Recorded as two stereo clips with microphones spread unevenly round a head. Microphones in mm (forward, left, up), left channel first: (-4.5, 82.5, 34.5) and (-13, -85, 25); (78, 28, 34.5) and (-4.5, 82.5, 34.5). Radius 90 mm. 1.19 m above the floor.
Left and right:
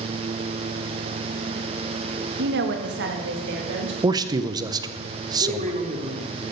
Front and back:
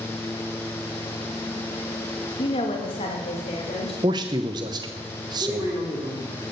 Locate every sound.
2.4 s a woman speaking: 85° right, 1.8 m; by 3.9 s 75° right, 3.5 m
4.0 s a man speaking: 160° right, 0.8 m
5.4 s a man speaking: 140° right, 3 m